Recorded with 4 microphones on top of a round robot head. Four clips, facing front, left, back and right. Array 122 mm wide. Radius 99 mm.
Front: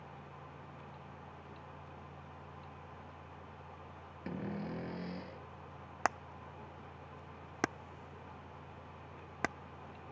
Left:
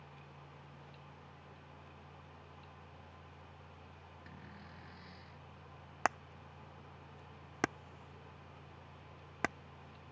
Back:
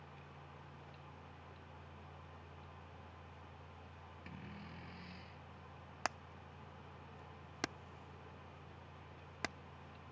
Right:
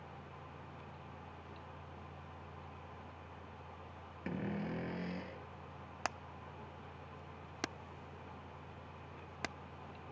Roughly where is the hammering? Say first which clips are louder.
Left 7 dB, front 8 dB; ahead left.